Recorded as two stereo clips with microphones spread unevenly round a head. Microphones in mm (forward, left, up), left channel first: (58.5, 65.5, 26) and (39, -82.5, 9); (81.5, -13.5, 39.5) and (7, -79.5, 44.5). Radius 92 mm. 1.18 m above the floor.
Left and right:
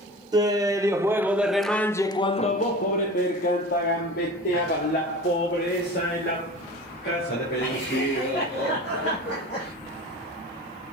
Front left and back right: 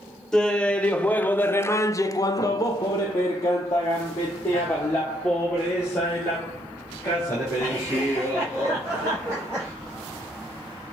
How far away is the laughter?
About 1.4 m.